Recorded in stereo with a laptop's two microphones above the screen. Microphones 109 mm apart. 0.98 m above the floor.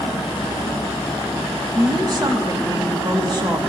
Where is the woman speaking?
40° right (ahead or behind), 2 m.